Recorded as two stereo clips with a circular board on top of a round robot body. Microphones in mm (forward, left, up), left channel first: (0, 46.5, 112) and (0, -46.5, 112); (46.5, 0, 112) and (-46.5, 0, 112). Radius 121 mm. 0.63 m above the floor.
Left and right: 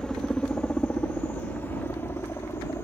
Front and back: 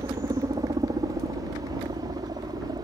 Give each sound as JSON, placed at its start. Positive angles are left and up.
{"t": 0.0, "sound": "a helicopter", "azimuth_deg": 170}